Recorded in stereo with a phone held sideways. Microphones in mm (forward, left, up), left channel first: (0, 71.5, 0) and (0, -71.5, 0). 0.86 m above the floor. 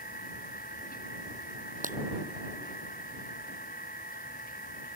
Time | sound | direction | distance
0.0 | a machine running | 85° left | ?
1.8 | breaking glass | 65° right (ahead or behind) | ?